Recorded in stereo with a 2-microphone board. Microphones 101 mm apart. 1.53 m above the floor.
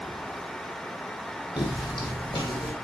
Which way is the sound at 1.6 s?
45° left (ahead or behind).